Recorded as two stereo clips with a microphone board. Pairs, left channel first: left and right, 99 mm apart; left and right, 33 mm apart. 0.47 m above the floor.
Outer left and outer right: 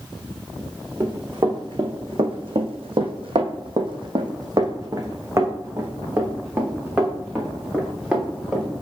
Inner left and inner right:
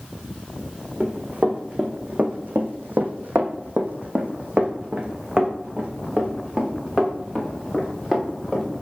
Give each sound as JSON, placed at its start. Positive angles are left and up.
{"t": 1.0, "sound": "running footsteps", "side_deg": -45, "distance_m": 1.6}